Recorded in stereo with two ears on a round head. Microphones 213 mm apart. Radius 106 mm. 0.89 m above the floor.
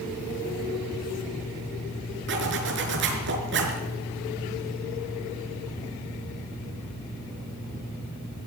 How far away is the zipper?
About 4 m.